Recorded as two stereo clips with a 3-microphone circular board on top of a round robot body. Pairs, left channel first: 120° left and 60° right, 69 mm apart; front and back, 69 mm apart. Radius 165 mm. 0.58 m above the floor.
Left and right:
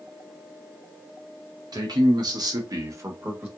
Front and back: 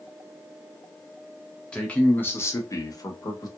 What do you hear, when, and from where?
1.7 s a man speaking: 75° right, 1.3 m; by 3.5 s straight ahead, 1.2 m